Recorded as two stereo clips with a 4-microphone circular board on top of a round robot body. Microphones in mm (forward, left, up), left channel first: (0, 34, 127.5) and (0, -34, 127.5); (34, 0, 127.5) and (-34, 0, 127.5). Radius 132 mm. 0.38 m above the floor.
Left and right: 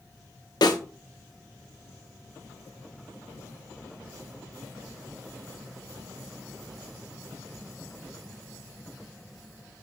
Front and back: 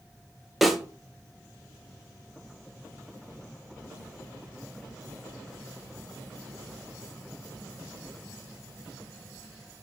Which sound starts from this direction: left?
A snare drum, at 0.6 s.